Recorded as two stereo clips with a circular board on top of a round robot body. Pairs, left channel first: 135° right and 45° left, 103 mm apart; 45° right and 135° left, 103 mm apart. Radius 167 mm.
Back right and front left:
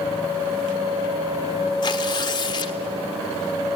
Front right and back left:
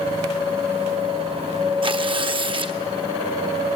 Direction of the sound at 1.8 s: 175° left.